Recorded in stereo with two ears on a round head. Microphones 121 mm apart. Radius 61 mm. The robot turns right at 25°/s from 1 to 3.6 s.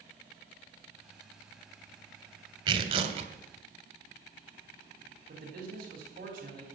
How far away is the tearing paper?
About 1.6 m.